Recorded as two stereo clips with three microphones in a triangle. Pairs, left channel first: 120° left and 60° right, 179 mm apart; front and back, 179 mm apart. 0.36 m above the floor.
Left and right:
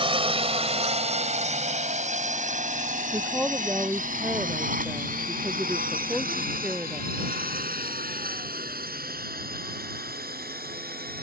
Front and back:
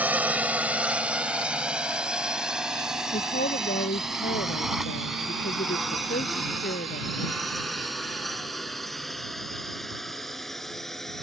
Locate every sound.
0.0 s a drone: 105° right; by 11.2 s 90° right
3.1 s a woman speaking: 20° left